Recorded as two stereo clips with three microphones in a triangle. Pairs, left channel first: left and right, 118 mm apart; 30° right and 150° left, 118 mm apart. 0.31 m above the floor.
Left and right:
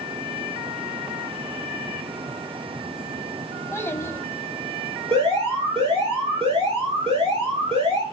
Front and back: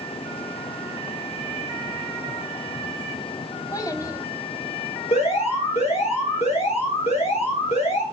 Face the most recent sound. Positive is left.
turn(degrees=-55)